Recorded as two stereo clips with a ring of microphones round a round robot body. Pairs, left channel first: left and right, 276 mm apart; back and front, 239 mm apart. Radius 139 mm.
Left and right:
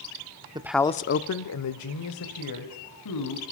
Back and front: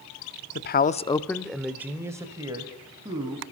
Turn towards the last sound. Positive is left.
turn(degrees=70)